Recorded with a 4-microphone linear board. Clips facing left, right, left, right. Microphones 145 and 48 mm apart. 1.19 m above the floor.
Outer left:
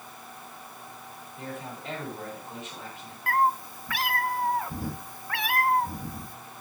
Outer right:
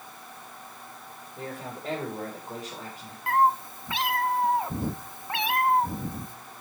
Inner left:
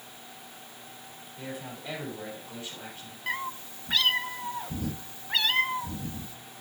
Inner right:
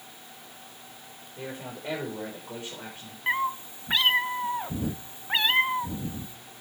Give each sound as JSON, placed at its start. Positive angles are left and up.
{"t": 1.4, "sound": "a man speaking", "side_deg": -45, "distance_m": 4.5}
{"t": 3.3, "sound": "a cat meowing", "side_deg": -20, "distance_m": 0.6}